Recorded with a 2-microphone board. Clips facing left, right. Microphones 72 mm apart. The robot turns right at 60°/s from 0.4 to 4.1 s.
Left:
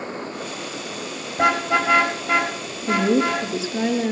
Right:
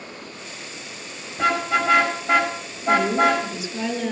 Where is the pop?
I don't hear a pop.